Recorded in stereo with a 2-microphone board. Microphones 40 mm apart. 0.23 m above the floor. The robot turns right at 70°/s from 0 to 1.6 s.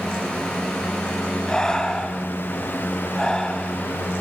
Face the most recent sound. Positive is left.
turn(degrees=20)  # may be behind; listen again after turning